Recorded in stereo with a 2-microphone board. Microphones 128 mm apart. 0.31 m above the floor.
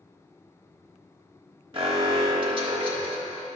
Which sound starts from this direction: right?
An alarm, at 1.7 s.